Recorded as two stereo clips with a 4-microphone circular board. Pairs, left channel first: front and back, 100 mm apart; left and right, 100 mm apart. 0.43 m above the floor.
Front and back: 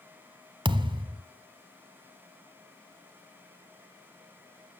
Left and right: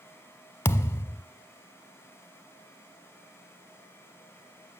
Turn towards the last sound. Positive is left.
turn(degrees=155)